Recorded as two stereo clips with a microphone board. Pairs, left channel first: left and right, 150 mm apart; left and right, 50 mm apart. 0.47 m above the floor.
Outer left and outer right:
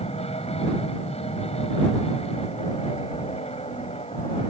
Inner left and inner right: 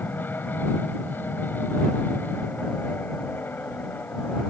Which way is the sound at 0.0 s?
45° left (ahead or behind).